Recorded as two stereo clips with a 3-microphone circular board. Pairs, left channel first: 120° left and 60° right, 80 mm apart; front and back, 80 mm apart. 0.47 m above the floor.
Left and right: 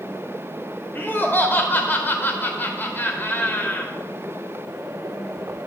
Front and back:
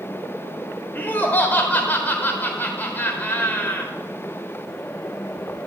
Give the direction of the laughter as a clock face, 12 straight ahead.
10 o'clock.